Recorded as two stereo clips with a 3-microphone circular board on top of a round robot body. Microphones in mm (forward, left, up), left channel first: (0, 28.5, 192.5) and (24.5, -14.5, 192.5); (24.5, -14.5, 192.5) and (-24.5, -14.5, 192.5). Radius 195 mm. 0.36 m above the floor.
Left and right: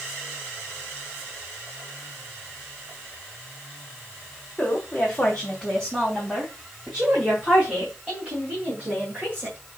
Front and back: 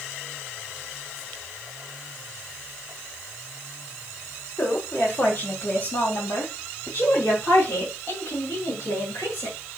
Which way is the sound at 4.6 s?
45° left.